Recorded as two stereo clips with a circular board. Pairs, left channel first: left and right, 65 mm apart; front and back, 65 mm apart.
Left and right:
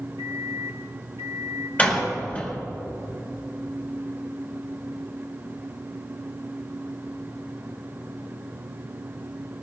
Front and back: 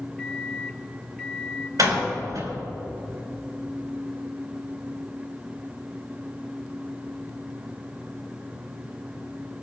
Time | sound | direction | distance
0.2 | a microwave | 80° right | 1.1 m
1.8 | a door slam | 155° left | 5 m